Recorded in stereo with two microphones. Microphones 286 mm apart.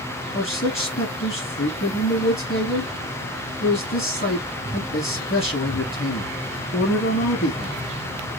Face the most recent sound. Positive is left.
turn(degrees=45)  # may be behind; listen again after turning